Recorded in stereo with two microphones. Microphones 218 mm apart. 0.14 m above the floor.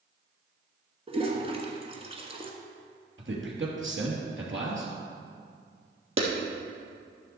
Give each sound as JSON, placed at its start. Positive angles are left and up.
{"t": 1.1, "sound": "a toilet flushing", "side_deg": -25, "distance_m": 1.5}
{"t": 3.2, "sound": "a man speaking", "side_deg": -60, "distance_m": 3.0}
{"t": 6.2, "sound": "a clap", "side_deg": -65, "distance_m": 3.0}